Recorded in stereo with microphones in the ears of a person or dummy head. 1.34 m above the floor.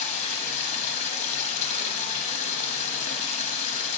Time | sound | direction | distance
0.0 | running water | 40° left (ahead or behind) | 1.0 m